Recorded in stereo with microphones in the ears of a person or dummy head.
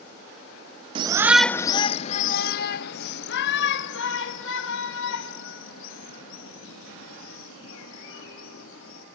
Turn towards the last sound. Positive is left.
turn(degrees=80)